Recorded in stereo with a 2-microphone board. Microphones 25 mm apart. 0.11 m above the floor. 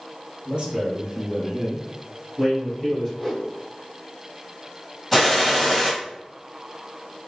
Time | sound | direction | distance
0.5 | a man speaking | 40° right (ahead or behind) | 1.8 m
3.2 | a whoosh | centre (ahead or behind) | 2.0 m
5.1 | a gunshot | 5° right (ahead or behind) | 2 m